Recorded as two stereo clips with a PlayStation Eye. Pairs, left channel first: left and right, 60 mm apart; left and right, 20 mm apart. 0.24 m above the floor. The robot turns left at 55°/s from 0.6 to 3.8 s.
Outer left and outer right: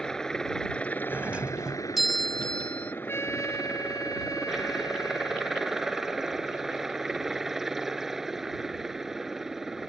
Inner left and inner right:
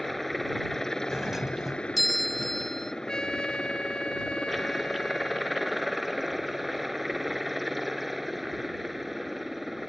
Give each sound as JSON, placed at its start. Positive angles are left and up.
{"t": 0.0, "sound": "a helicopter", "azimuth_deg": 170}
{"t": 1.1, "sound": "a doorbell", "azimuth_deg": -125}
{"t": 3.1, "sound": "a trumpet", "azimuth_deg": 140}